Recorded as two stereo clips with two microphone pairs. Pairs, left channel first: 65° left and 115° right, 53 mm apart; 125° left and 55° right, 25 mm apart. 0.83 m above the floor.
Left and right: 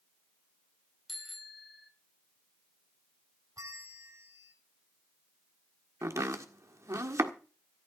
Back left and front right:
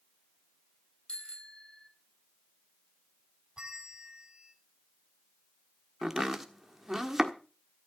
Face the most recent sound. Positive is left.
turn(degrees=-135)